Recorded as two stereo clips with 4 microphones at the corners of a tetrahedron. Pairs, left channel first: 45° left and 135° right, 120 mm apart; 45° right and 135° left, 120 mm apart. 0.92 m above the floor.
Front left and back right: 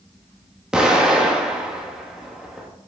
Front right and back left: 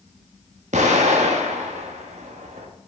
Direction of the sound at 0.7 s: 140° left.